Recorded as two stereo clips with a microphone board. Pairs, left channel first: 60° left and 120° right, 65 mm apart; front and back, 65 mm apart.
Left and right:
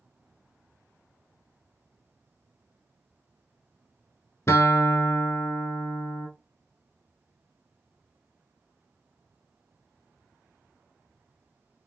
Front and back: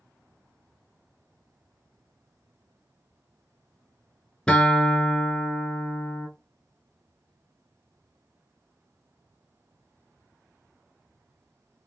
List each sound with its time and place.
4.5 s a guitar: 65° left, 0.8 m